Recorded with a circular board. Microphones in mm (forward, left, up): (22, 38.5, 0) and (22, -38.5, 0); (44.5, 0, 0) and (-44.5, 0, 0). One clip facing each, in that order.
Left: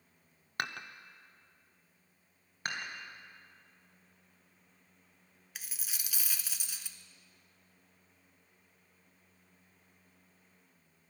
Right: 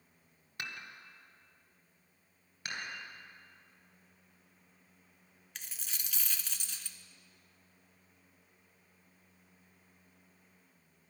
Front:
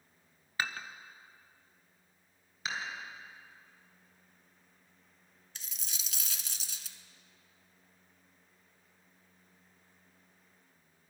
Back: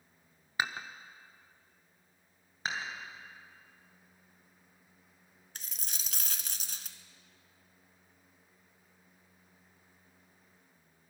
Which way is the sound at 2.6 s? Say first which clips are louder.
Left 3 dB, back 1 dB; 135° left.